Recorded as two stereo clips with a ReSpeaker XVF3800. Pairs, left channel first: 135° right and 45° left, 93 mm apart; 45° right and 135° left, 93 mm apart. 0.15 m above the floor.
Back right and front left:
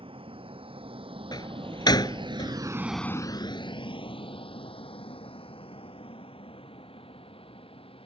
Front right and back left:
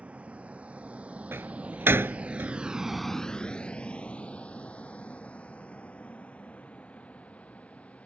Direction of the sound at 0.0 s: 60° left.